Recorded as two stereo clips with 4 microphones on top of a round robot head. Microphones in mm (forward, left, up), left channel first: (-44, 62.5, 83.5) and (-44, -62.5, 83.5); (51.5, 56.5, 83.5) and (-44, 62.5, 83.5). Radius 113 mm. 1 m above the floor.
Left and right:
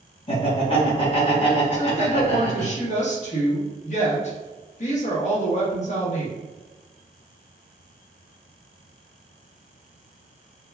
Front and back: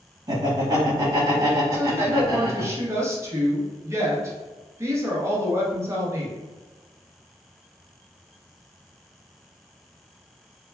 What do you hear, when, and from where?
0.3 s laughter: 130° left, 1.7 m
1.7 s a woman speaking: 115° left, 1.2 m